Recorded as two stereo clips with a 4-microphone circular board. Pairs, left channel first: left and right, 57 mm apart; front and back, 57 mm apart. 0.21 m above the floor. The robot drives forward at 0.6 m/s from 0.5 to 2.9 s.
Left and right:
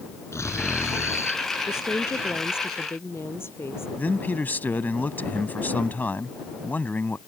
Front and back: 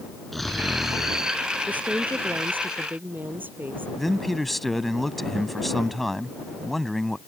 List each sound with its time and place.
0.3 s snoring: 85° left; by 1.4 s 110° left
1.7 s a woman speaking: 120° left; by 3.9 s 130° left
4.0 s a man speaking: 85° left